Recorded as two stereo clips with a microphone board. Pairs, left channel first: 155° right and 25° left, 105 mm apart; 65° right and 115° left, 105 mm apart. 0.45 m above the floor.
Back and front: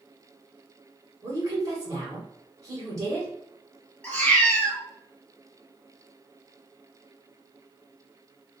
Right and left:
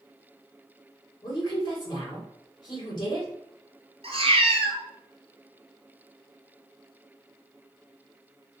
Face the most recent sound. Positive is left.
turn(degrees=125)